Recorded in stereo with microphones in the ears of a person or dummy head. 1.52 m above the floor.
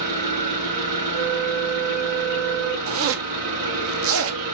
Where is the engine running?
45° right (ahead or behind), 3.5 m.